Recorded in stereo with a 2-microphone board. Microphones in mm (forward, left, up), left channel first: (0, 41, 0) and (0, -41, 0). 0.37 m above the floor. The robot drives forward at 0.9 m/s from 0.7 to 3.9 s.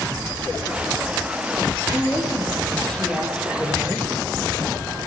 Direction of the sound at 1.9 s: 10° left (ahead or behind).